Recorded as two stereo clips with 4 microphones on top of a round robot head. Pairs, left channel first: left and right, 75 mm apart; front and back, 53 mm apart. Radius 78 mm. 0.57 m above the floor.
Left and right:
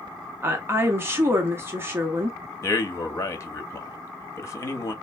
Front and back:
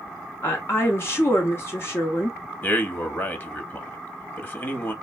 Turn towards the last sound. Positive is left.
turn(degrees=45)